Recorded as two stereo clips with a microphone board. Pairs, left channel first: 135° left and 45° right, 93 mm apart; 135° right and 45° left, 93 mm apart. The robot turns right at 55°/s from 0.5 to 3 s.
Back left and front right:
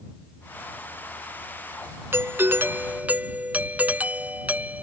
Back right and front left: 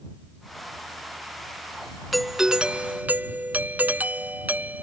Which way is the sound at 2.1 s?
45° right.